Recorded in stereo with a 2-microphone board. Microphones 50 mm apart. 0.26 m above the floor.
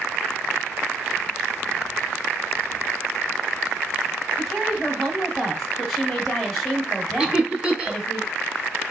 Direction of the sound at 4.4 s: Centre (ahead or behind).